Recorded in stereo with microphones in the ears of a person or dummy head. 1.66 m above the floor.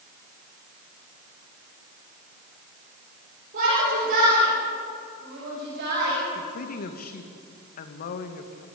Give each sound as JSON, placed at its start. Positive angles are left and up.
{"t": 3.5, "sound": "a shout", "side_deg": -55, "distance_m": 8.0}
{"t": 6.3, "sound": "a woman speaking", "side_deg": 45, "distance_m": 2.0}